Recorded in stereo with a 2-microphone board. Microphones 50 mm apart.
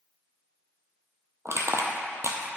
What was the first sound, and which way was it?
Crushing, 65° right (ahead or behind).